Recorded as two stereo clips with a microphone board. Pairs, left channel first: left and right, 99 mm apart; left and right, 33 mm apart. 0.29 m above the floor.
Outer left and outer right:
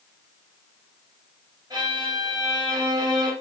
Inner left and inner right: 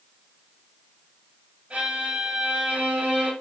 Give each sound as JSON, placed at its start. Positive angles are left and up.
{"t": 1.7, "sound": "a violin", "side_deg": -40, "distance_m": 2.0}